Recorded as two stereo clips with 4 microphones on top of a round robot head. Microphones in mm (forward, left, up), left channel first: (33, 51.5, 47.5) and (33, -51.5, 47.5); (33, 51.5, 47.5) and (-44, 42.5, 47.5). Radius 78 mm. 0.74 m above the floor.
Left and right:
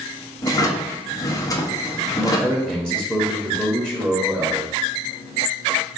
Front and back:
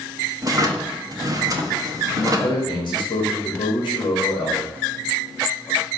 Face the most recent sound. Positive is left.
turn(degrees=-15)